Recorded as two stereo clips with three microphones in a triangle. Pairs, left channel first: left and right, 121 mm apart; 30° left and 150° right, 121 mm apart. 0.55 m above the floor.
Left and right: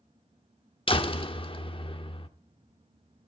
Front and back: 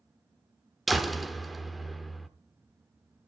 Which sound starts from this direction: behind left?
A door slam, at 0.9 s.